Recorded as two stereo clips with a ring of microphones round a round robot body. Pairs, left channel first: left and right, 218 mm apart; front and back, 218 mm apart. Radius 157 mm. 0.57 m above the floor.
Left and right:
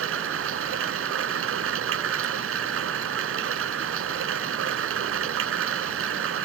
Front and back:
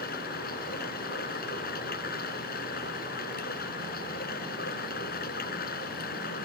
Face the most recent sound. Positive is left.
turn(degrees=-65)